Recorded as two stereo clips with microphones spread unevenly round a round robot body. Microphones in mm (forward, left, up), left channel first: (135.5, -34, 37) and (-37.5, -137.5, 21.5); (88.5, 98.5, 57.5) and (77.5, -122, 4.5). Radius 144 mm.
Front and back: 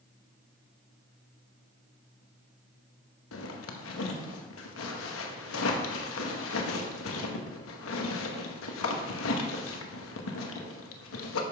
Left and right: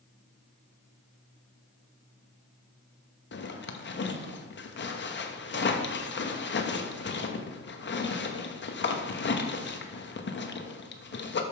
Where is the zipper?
45° left, 1.2 m.